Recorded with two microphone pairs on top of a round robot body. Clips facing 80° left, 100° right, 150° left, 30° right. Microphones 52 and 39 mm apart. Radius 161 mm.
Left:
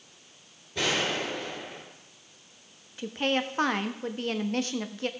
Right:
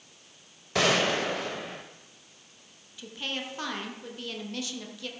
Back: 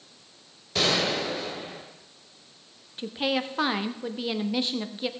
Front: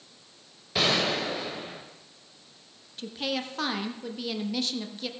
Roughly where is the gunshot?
Right.